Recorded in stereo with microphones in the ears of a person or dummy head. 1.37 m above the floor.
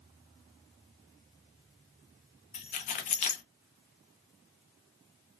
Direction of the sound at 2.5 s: 35° left (ahead or behind).